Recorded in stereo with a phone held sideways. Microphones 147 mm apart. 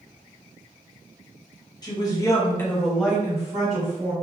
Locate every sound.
1.8 s a woman speaking: 25° left (ahead or behind), 0.9 m; by 4.1 s 30° right (ahead or behind), 1.1 m